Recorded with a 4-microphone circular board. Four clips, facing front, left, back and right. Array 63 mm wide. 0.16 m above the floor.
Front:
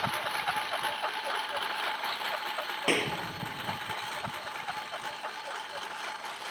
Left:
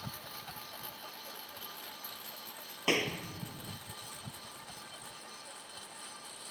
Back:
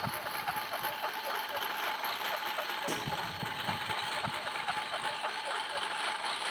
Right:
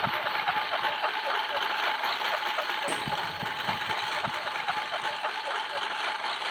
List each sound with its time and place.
0.0 s a lawn mower: 75° right; by 6.5 s 100° right
2.9 s a clap: 25° left